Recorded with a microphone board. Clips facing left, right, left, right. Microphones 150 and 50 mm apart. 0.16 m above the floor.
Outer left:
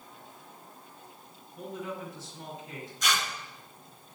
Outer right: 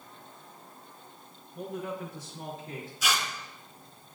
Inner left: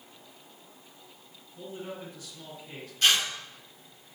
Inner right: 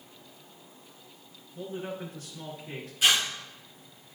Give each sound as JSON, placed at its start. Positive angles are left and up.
{"t": 1.6, "sound": "a man speaking", "side_deg": -45, "distance_m": 2.5}
{"t": 3.0, "sound": "tearing paper", "side_deg": -5, "distance_m": 2.0}